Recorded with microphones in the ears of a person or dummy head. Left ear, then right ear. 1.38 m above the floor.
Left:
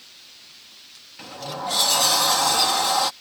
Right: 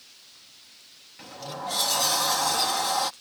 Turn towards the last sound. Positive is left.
turn(degrees=10)  # may be behind; listen again after turning